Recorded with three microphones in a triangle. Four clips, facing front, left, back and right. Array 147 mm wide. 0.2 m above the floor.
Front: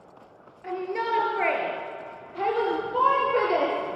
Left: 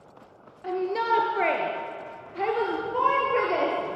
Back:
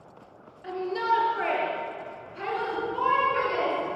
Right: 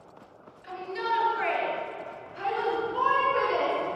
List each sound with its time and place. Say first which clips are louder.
0.6 s a shout: left 5 dB, back 1 dB; 85° left, 4 m; by 3.8 s 35° left, 4.5 m